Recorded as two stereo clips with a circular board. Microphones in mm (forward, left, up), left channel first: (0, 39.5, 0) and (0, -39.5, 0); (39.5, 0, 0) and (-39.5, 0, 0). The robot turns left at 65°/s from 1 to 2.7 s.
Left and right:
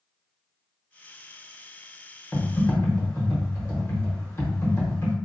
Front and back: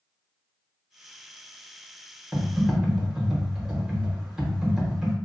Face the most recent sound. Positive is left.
turn(degrees=105)